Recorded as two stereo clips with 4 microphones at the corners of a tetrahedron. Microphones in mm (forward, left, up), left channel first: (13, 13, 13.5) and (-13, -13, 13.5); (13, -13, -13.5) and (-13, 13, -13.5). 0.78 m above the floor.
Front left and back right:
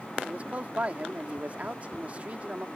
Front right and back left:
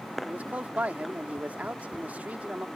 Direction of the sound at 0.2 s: Straight behind.